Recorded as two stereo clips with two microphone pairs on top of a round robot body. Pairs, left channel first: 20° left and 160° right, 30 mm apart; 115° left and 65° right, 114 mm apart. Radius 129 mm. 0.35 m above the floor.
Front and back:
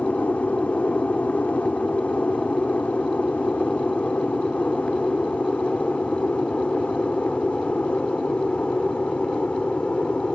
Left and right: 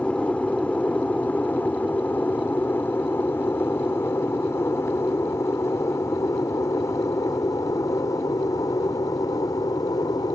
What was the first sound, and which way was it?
An aircraft, 40° left.